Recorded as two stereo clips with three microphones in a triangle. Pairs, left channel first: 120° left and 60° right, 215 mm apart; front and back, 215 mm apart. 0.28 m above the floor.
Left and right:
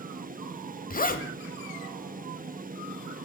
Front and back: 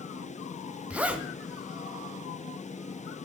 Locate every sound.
0.9 s a zipper: 100° left, 0.8 m